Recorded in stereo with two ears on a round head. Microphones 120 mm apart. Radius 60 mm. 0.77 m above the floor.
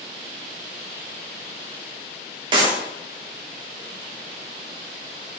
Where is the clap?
40° right (ahead or behind), 1.1 m.